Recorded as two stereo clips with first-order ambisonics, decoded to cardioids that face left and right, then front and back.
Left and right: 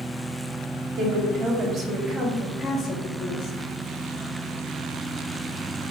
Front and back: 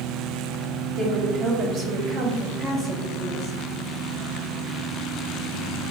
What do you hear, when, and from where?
1.0 s a woman speaking: 130° right, 1.0 m; by 3.6 s 80° left, 0.7 m